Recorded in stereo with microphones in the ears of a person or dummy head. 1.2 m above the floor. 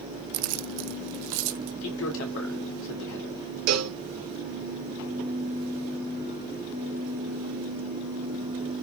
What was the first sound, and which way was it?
Keys jangling, 60° right (ahead or behind).